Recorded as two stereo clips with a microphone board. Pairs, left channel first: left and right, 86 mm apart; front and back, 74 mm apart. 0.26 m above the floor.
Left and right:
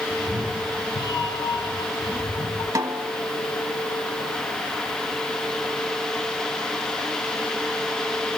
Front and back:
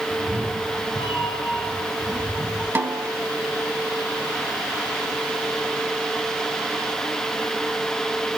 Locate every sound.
0.1 s a cat meowing: 150° left, 3 m; by 2.6 s 100° left, 4.5 m
2.8 s a snare drum: 130° right, 1.3 m